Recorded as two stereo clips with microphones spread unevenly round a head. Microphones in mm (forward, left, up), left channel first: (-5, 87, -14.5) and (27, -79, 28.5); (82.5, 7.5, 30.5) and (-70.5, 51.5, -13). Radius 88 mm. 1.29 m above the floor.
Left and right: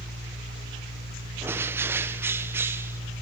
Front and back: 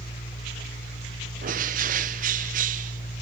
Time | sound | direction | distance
0.0 | a fan | 60° right | 2 m
1.4 | a bird | 160° right | 0.5 m